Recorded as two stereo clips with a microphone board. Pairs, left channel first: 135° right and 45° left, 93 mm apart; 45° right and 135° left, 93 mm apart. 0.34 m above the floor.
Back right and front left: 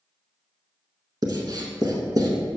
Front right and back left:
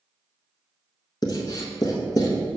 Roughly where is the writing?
Ahead.